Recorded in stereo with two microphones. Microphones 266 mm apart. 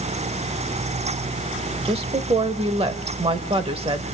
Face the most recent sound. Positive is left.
turn(degrees=-20)  # may be behind; listen again after turning